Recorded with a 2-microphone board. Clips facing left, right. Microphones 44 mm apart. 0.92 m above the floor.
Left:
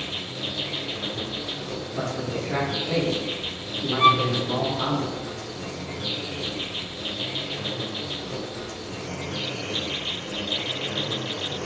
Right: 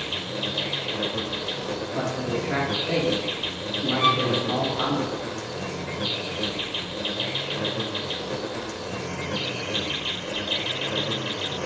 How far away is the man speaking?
About 5 m.